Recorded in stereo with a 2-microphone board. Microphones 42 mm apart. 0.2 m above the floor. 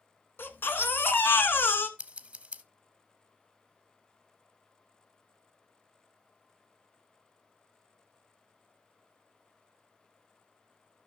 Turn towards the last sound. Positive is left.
turn(degrees=-25)  # may be behind; listen again after turning